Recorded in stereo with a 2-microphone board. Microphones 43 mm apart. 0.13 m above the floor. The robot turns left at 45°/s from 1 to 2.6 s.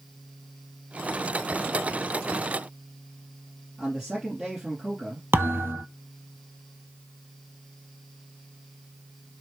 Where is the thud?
65° right (ahead or behind), 0.5 m.